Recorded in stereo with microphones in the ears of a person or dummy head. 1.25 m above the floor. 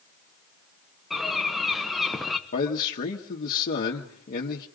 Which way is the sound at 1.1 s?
Centre (ahead or behind).